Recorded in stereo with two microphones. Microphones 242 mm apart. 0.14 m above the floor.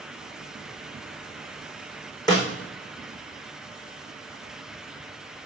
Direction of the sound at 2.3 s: 15° left (ahead or behind).